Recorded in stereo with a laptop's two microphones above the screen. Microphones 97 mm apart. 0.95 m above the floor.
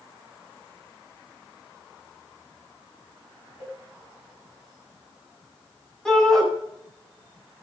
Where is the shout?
5° left (ahead or behind), 8 m.